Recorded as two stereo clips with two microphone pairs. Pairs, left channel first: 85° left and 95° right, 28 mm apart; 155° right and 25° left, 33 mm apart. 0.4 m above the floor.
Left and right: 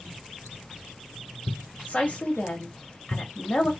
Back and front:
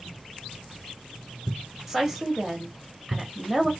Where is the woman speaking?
105° left, 2 m.